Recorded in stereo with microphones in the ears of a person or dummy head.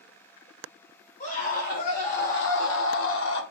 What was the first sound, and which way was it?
A scream, 45° left (ahead or behind).